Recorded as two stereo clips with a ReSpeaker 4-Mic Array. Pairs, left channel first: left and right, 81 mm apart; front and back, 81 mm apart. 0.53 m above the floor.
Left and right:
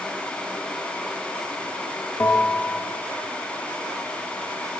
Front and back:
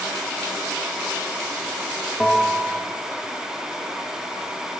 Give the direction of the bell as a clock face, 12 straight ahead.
9 o'clock.